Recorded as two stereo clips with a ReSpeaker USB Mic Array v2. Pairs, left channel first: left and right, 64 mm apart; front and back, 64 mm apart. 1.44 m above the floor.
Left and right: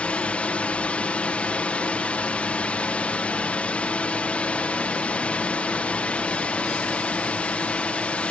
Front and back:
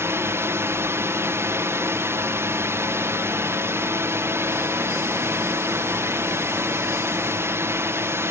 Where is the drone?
155° left.